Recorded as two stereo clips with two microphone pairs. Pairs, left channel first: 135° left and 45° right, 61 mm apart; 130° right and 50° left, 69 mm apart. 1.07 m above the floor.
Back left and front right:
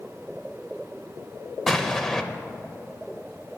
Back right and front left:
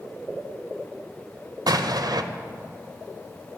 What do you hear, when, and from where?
1.7 s an explosion: 55° left, 0.5 m